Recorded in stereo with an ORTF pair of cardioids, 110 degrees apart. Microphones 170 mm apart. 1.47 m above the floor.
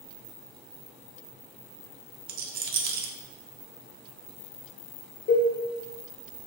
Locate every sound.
2.3 s a rattle: 60° right, 0.6 m
5.3 s a cowbell: 50° left, 0.7 m